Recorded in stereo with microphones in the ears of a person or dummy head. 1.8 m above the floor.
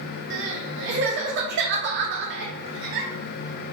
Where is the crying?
65° right (ahead or behind), 0.6 m.